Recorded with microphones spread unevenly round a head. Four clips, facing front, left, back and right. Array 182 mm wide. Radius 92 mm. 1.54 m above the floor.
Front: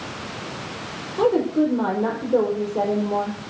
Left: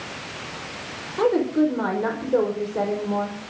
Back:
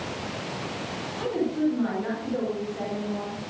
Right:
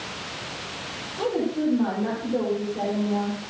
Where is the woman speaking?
35° left, 5 m.